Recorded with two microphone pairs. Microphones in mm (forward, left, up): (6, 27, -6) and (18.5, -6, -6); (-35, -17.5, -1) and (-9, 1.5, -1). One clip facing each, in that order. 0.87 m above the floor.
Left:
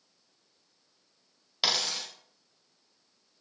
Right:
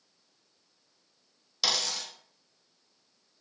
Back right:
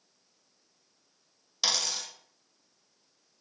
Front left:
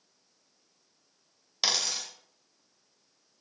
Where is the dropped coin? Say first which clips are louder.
Left 1 dB, even; 95° left, 0.6 m.